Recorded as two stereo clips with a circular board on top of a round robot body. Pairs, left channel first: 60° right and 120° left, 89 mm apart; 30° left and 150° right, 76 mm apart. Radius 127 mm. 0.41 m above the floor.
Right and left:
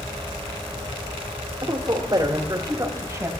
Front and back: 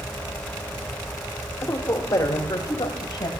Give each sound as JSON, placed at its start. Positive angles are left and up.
{"t": 1.6, "sound": "a man speaking", "azimuth_deg": 75, "distance_m": 1.7}